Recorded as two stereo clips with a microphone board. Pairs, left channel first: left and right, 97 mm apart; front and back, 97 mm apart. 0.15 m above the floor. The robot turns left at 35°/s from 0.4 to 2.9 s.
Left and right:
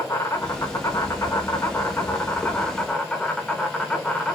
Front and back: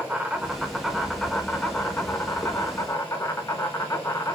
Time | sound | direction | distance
0.0 | an insect | 110° left | 1.0 m